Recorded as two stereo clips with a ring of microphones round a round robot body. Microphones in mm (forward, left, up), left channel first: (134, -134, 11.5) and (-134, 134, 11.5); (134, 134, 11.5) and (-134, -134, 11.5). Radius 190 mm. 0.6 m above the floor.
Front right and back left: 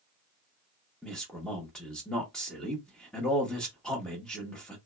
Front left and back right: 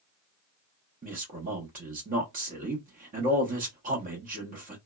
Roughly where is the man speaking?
Behind right.